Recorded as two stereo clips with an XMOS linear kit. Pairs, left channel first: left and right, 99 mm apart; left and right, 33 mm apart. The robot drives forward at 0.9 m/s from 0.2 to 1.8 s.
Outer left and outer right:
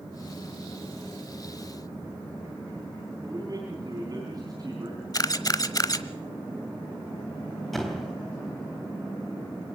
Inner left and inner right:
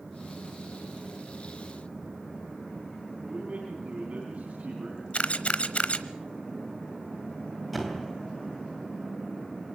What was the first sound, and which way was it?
A man speaking, 40° right (ahead or behind).